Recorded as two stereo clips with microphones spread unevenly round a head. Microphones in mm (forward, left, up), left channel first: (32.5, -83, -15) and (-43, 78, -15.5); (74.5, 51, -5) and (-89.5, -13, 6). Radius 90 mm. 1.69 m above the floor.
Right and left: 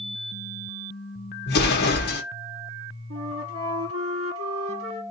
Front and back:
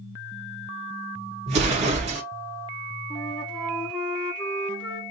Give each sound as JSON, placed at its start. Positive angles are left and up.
{"t": 1.5, "sound": "an explosion", "azimuth_deg": -100, "distance_m": 1.3}
{"t": 3.1, "sound": "a flute", "azimuth_deg": 105, "distance_m": 1.3}